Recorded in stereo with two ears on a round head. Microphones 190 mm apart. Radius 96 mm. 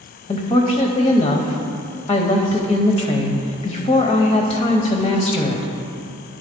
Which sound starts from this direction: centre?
A woman speaking, at 0.3 s.